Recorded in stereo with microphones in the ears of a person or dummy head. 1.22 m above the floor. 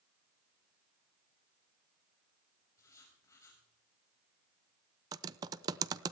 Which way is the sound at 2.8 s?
20° left (ahead or behind).